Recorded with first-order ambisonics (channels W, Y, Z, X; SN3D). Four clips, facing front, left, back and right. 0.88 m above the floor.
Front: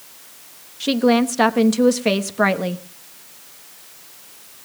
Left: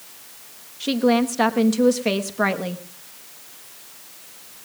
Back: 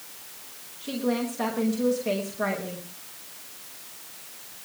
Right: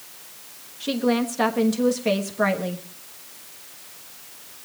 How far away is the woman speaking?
About 1.0 m.